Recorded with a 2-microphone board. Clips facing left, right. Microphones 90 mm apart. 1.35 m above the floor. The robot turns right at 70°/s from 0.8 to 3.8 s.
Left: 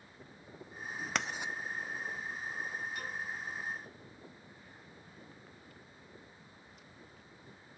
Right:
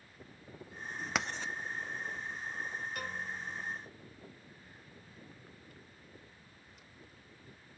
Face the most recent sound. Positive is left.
turn(degrees=-60)